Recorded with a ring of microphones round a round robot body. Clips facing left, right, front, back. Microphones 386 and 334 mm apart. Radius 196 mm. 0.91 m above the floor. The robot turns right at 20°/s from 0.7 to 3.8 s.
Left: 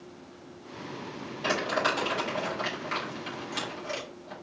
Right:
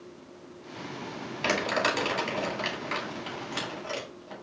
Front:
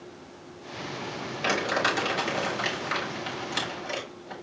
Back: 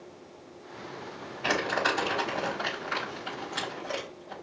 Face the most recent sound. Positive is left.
turn(degrees=15)